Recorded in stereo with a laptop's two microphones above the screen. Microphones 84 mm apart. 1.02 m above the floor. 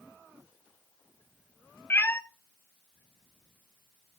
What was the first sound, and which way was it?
A cat meowing, 25° left (ahead or behind).